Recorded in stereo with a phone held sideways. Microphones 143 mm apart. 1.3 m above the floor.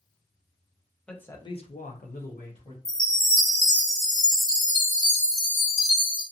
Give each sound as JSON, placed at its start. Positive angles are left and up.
{"t": 1.1, "sound": "a man speaking", "side_deg": 5, "distance_m": 0.8}
{"t": 2.9, "sound": "a chime", "side_deg": 75, "distance_m": 1.1}